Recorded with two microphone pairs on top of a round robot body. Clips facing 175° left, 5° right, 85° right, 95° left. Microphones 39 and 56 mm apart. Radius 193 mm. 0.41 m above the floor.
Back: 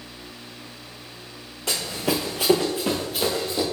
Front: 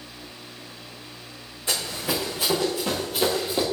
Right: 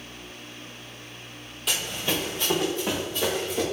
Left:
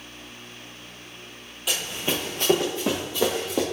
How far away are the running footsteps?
About 0.9 m.